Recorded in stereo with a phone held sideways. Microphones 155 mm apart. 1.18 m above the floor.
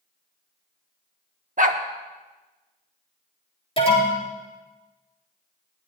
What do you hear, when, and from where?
1.6 s a dog barking: 60° right (ahead or behind), 1.1 m
3.8 s an alarm: 40° left (ahead or behind), 5.5 m